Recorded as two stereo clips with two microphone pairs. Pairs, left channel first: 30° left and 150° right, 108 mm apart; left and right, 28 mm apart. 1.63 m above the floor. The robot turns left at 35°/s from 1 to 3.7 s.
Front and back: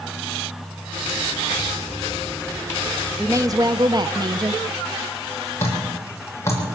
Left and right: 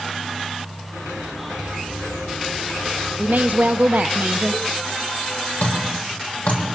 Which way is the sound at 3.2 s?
80° right.